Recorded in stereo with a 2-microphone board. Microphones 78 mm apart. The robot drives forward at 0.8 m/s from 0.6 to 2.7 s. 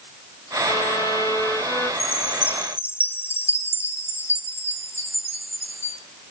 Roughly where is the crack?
No crack in this recording.